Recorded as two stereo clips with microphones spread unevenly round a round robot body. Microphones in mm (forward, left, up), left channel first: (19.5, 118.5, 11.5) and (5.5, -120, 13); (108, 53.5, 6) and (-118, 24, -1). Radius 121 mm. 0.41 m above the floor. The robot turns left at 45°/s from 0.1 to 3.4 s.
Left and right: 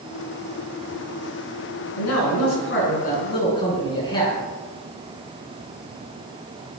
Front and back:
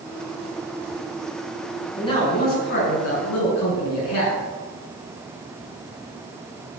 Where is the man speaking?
80° left, 5.5 m; by 4.4 s 15° left, 5.5 m.